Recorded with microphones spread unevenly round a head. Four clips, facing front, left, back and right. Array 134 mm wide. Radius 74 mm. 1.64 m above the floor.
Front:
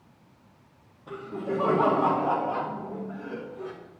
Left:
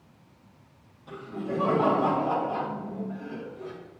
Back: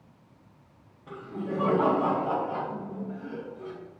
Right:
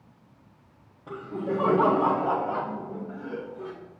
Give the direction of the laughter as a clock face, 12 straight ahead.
2 o'clock.